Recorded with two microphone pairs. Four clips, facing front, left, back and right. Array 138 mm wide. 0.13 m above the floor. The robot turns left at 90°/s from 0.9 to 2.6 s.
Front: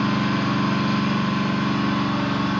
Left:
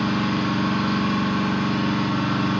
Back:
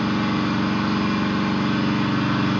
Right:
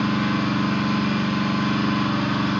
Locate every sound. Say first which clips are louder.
0.0 s an engine running: even, even; 20° right, 1.8 m; by 2.6 s 175° right, 1.8 m